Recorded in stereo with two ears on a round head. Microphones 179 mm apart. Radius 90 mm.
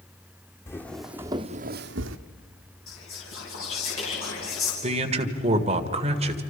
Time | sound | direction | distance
0.7 | footsteps | 15° left (ahead or behind) | 1.5 m
2.9 | whispering | 70° left (ahead or behind) | 4.5 m
4.8 | a man speaking | 35° right (ahead or behind) | 1.7 m